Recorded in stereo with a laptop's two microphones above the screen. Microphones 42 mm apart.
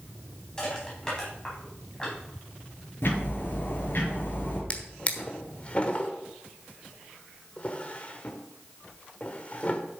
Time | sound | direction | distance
0.6 | crushing | 20° left (ahead or behind) | 4.5 m
3.0 | ticking | 55° left (ahead or behind) | 4 m
4.7 | a drawer | 30° left (ahead or behind) | 1.2 m